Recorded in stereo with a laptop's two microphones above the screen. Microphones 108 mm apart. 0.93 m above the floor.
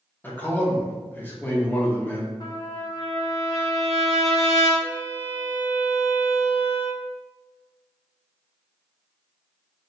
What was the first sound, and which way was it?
A man speaking, 15° left (ahead or behind).